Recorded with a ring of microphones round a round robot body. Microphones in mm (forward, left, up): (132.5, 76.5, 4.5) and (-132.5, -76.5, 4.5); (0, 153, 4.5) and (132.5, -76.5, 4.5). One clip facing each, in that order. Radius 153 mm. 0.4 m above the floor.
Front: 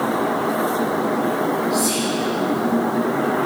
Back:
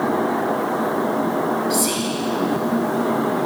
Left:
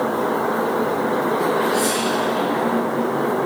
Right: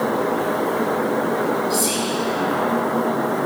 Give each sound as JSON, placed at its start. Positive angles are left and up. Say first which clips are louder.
{"t": 1.7, "sound": "whispering", "louder": "front 1 dB, left 2 dB", "azimuth_deg": -115, "distance_m": 2.5}